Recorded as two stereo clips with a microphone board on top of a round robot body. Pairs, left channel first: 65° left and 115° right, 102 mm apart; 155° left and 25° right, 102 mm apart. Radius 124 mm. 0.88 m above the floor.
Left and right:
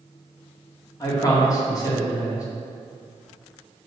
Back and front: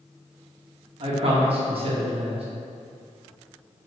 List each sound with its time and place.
1.0 s a man speaking: 10° left, 1.8 m